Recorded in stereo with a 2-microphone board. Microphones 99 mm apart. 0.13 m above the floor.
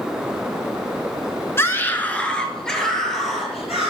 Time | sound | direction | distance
1.6 | a scream | 25° left (ahead or behind) | 1.2 m